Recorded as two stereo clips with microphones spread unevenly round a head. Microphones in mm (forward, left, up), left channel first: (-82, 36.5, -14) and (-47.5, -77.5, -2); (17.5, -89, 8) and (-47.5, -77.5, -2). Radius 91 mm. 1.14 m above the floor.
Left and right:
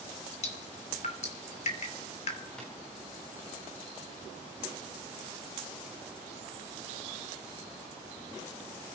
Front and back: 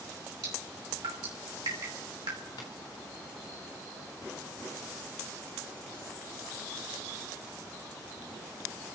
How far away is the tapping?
About 3.5 m.